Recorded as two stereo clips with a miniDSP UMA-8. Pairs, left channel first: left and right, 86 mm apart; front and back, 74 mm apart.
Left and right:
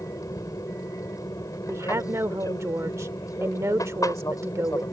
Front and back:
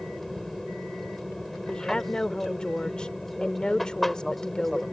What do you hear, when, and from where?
0.0 s an aircraft: 85° left
1.7 s a woman speaking: 70° right